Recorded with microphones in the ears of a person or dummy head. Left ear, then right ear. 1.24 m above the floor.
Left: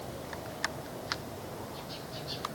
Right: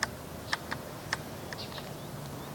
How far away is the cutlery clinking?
I don't hear cutlery clinking.